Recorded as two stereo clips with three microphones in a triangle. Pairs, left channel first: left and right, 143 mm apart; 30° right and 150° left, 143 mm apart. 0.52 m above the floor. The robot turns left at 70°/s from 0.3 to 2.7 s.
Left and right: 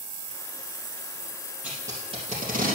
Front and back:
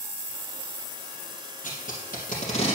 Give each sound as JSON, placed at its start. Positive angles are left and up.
{"t": 1.6, "sound": "tape being pulled", "azimuth_deg": -10, "distance_m": 3.0}